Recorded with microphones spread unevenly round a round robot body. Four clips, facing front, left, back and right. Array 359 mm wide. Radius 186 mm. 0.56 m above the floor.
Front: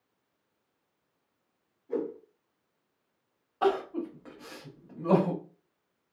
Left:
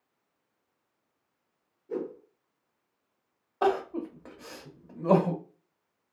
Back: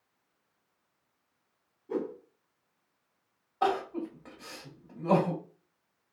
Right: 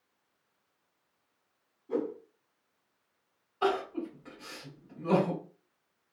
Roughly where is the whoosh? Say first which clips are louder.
Right 2 dB, front 1 dB; behind.